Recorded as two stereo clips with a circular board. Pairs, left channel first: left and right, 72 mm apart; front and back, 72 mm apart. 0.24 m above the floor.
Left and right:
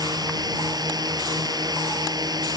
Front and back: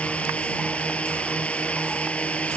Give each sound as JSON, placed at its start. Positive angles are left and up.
{"t": 0.0, "sound": "a drone", "azimuth_deg": -75}